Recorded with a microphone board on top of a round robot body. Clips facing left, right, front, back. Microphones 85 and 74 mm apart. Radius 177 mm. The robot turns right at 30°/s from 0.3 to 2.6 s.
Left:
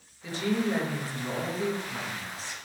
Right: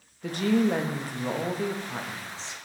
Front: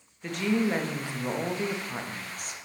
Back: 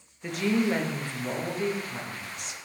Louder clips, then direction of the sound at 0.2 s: Right 4 dB, back 1 dB; 95° right.